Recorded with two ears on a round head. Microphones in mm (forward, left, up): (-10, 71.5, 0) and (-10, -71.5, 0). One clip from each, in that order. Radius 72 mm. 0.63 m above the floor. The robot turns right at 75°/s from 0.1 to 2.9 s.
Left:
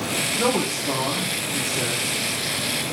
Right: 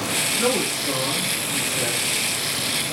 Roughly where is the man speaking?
Behind left.